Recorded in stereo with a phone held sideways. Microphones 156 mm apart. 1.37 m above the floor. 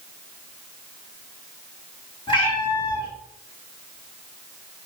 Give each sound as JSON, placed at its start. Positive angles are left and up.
{"t": 2.3, "sound": "a cat meowing", "side_deg": 30, "distance_m": 3.5}